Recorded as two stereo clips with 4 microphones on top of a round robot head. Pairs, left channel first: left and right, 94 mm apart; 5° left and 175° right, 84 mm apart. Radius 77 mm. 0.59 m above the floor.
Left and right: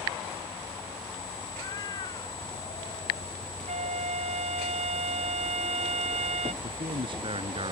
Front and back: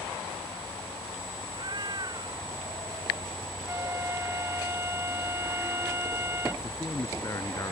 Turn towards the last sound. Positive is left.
turn(degrees=-60)